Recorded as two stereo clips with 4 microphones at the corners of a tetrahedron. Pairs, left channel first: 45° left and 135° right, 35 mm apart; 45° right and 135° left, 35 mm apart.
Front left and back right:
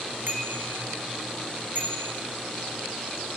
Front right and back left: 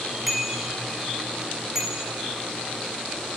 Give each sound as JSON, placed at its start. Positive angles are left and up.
{"t": 0.3, "sound": "a bicycle bell", "azimuth_deg": -140, "distance_m": 3.5}